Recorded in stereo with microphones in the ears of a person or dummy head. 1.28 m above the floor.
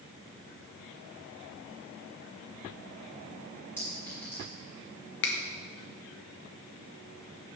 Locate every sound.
3.8 s a clink: 10° left (ahead or behind), 2.5 m
5.2 s a finger snap: 60° left (ahead or behind), 0.8 m